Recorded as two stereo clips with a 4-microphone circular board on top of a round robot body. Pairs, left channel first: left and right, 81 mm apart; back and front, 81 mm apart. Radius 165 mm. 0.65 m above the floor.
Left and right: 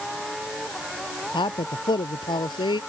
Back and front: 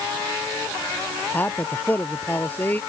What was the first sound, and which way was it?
A man speaking, 115° left.